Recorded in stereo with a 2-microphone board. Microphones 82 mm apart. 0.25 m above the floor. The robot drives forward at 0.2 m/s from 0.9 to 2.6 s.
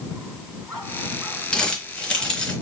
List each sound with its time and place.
1.5 s crumpling: 15° left (ahead or behind), 1.2 m